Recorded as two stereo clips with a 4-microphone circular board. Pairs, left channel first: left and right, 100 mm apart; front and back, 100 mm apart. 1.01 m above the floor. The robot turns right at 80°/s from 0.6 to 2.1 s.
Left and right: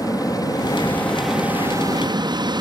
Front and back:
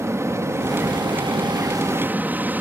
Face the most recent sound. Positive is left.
turn(degrees=-110)